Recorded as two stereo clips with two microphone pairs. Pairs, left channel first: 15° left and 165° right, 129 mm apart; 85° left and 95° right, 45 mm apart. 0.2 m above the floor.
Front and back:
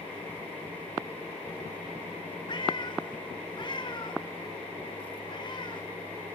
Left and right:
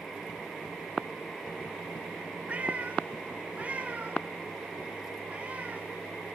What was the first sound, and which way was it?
A cat meowing, 35° right.